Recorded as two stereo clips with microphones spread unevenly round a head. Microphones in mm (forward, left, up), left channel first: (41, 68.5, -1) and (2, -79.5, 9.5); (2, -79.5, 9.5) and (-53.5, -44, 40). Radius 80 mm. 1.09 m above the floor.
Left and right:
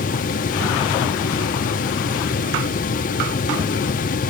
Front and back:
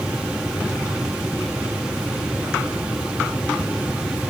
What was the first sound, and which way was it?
Only background noise.